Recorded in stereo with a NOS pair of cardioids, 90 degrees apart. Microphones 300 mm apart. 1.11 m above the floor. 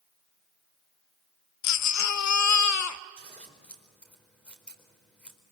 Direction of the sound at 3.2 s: 5° left.